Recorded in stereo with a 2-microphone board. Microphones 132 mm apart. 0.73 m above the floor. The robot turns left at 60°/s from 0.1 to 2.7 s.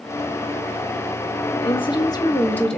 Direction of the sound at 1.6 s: 80° left.